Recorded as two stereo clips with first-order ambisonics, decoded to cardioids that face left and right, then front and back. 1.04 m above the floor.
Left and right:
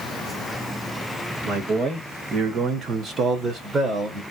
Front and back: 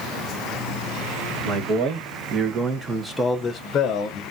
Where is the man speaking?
145° right, 1.4 m; by 4.2 s 10° right, 0.9 m.